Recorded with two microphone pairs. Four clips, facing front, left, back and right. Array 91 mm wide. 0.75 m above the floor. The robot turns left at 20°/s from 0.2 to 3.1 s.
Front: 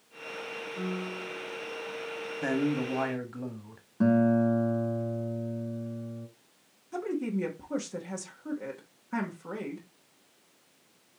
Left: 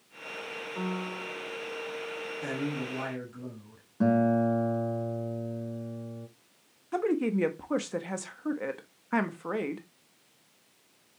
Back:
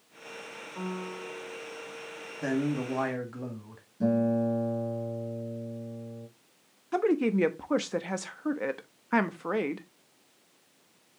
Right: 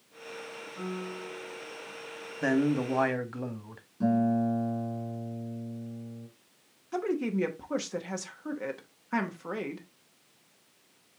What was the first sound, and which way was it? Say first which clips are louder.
A piano: left 2 dB, even; 115° left.